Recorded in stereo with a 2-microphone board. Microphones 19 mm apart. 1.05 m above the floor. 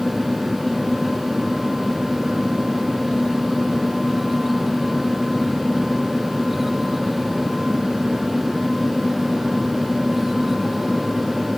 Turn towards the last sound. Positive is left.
No sound to turn to.